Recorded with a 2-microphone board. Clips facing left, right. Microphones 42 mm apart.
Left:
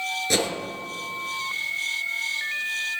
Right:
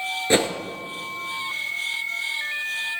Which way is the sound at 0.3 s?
30° right (ahead or behind).